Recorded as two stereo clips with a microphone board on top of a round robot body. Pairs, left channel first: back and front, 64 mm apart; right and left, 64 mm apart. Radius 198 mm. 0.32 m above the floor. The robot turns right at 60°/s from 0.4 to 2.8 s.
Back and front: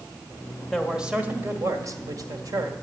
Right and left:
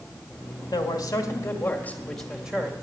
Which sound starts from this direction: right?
A man speaking, at 0.7 s.